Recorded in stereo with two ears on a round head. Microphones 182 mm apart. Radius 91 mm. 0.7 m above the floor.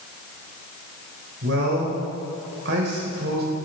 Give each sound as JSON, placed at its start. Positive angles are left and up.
{"t": 1.4, "sound": "a man speaking", "side_deg": -65, "distance_m": 4.0}